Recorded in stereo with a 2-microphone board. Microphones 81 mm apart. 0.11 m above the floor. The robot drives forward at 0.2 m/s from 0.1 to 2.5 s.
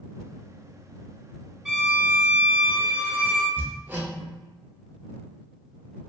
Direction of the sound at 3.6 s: 25° right (ahead or behind).